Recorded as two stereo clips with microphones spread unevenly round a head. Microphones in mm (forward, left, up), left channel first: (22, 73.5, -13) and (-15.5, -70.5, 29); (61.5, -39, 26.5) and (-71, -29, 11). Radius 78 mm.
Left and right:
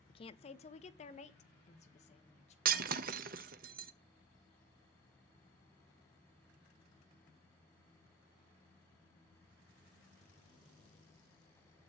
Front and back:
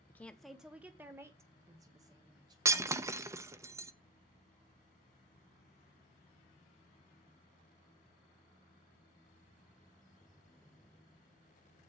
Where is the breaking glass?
115° right, 0.7 m.